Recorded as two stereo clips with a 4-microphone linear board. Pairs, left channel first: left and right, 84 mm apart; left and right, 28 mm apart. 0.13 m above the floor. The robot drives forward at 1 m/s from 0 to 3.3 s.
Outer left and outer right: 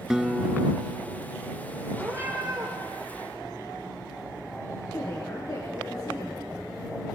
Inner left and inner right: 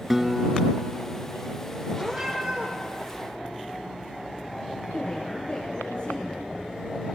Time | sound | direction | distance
0.1 | a guitar | 5° right (ahead or behind) | 0.6 m
2.0 | a cat meowing | 30° right (ahead or behind) | 2.5 m
4.9 | a woman speaking | 50° left (ahead or behind) | 2 m